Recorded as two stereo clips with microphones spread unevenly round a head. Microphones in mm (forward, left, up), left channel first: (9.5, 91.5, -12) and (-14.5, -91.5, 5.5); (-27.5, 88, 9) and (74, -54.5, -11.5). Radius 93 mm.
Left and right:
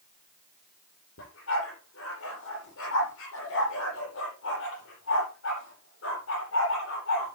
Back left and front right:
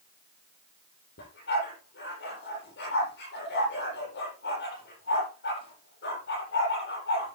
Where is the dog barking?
105° left, 9 m.